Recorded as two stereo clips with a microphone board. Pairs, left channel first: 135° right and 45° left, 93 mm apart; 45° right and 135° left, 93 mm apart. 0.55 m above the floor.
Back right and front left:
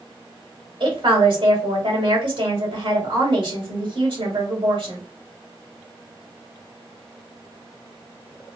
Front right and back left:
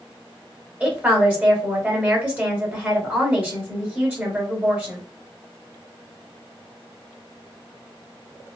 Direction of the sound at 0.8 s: 65° left.